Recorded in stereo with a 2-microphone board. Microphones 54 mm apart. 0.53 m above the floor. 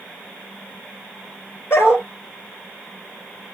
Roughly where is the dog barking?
Left.